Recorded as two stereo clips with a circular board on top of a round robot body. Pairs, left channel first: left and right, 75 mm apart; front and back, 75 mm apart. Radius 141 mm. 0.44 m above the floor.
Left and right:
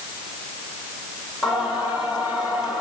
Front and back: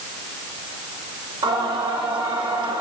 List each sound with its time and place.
1.4 s singing: straight behind, 10 m